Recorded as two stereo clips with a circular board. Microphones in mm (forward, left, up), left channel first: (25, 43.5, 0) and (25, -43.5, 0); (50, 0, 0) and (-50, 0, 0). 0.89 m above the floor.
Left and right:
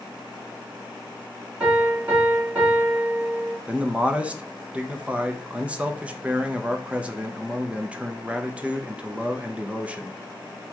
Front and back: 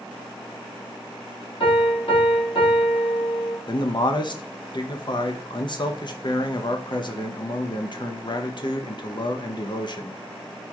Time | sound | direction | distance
1.6 | a piano | 15° right | 2 m
3.7 | a man speaking | 15° right | 0.6 m